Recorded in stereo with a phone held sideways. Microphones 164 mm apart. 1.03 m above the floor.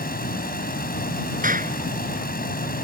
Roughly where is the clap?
Right.